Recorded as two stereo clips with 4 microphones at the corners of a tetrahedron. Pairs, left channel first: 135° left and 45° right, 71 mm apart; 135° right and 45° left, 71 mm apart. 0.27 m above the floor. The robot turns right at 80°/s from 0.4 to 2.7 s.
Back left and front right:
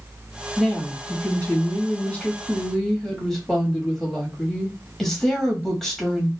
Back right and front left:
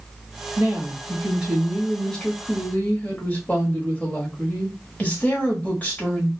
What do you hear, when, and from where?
0.6 s a woman speaking: 40° left, 1.0 m; by 6.3 s 150° right, 1.0 m